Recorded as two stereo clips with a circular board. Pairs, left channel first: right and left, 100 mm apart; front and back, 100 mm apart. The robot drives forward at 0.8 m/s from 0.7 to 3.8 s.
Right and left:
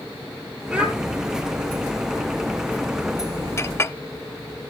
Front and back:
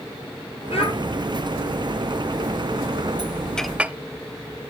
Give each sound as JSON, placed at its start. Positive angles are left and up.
{"t": 0.7, "sound": "a child speaking", "azimuth_deg": 10, "distance_m": 6.0}
{"t": 3.6, "sound": "a clink", "azimuth_deg": -75, "distance_m": 0.5}